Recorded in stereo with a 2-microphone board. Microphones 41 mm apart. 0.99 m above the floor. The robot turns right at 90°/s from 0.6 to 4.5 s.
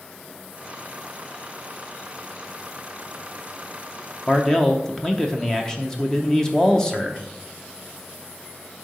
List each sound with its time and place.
4.3 s a man speaking: 20° left (ahead or behind), 0.8 m; by 7.2 s 15° left (ahead or behind), 0.8 m